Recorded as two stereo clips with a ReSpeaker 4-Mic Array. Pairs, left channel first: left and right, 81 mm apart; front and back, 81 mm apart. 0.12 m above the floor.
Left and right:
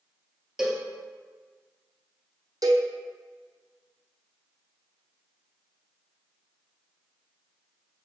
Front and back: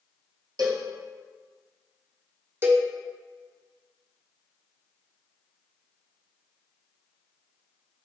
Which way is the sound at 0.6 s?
170° right.